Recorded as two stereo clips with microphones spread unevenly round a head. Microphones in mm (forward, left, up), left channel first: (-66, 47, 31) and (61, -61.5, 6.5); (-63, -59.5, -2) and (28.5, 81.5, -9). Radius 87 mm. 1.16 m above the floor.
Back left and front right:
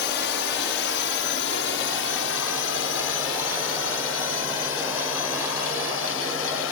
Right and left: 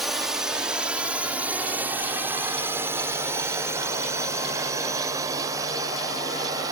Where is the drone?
145° left; by 6.7 s 125° left.